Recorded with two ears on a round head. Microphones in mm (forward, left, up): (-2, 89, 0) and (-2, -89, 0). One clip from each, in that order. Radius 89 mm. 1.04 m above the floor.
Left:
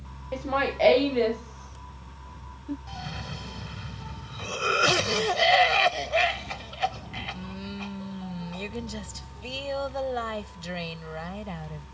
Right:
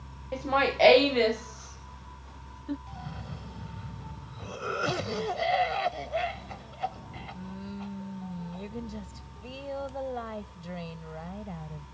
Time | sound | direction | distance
0.3 | laughter | centre (ahead or behind) | ?
2.9 | a cough | 65° left (ahead or behind) | ?